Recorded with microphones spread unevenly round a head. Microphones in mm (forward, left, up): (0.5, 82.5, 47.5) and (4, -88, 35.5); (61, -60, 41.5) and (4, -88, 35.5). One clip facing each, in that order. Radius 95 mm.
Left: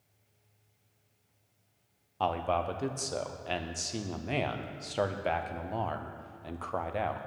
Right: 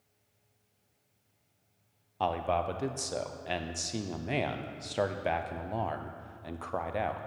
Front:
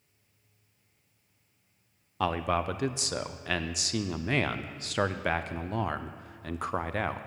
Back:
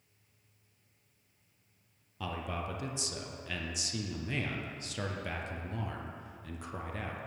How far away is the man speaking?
About 0.6 m.